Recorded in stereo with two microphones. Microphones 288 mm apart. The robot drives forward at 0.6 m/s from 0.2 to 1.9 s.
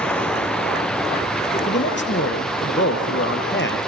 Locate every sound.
0.0 s running water: 5° left (ahead or behind), 1.6 m; by 3.9 s centre (ahead or behind), 2.5 m
1.7 s a man speaking: 40° left (ahead or behind), 4 m